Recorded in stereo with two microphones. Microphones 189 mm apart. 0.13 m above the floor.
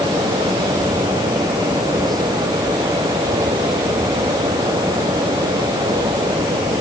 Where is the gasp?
No gasp in this recording.